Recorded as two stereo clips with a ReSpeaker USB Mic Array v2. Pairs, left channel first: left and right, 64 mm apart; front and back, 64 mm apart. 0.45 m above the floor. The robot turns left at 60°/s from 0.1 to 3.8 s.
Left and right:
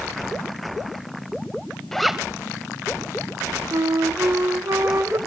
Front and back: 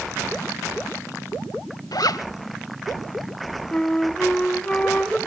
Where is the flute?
65° right, 0.8 m; by 5.2 s 70° right, 0.8 m.